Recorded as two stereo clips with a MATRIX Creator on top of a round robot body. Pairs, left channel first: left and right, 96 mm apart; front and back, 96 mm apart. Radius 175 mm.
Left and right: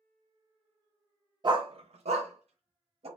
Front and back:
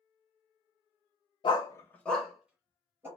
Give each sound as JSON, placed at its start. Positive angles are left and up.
{"t": 1.4, "sound": "a dog barking", "azimuth_deg": -45, "distance_m": 0.5}